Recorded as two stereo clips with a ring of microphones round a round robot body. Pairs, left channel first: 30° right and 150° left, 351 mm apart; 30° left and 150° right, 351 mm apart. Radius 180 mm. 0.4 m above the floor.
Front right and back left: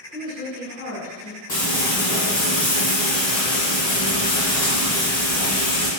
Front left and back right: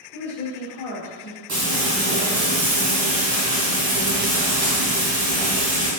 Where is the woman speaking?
70° left, 1.3 m; by 1.4 s 60° right, 1.2 m.